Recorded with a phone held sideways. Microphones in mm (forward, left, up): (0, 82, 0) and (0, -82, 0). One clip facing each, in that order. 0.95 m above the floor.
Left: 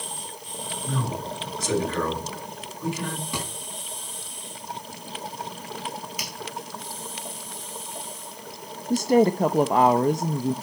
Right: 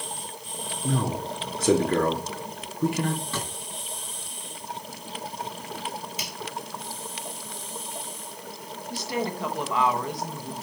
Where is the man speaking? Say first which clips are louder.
Right 3 dB; 60° right (ahead or behind), 3 m.